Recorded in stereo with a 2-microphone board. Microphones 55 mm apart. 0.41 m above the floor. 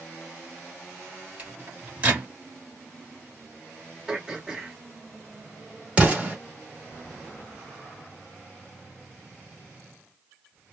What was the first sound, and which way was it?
A microwave, 25° right (ahead or behind).